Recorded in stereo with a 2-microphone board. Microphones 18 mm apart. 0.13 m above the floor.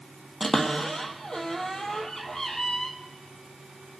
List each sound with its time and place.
0.4 s a cupboard door: 35° left (ahead or behind), 1.7 m